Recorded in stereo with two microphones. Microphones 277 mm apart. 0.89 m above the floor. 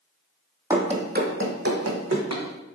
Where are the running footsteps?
10° right (ahead or behind), 1.2 m; by 2.4 s 70° right (ahead or behind), 2.5 m.